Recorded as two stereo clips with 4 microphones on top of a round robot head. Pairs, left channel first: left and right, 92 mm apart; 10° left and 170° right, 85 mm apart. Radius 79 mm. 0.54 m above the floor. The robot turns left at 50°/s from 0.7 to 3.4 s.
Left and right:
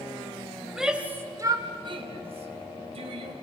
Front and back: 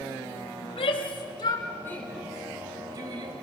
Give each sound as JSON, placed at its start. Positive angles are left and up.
{"t": 0.6, "sound": "a shout", "azimuth_deg": 0, "distance_m": 2.5}